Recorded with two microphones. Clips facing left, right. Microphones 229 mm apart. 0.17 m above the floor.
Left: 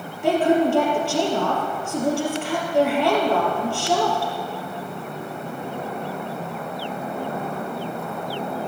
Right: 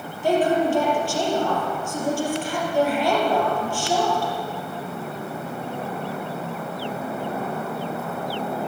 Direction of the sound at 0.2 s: 70° left (ahead or behind).